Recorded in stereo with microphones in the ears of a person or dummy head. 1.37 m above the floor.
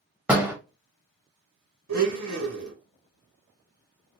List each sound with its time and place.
0.3 s a door slam: 5° right (ahead or behind), 0.9 m
1.9 s a blender: 75° right (ahead or behind), 1.7 m